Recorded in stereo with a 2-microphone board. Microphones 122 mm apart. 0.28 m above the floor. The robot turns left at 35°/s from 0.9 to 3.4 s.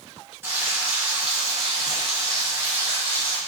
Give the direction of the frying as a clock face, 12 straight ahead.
5 o'clock.